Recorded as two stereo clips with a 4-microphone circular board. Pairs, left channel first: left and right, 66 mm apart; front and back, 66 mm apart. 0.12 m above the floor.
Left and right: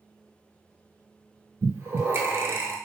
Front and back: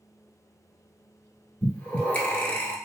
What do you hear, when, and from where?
1.6 s breathing: 60° right, 0.7 m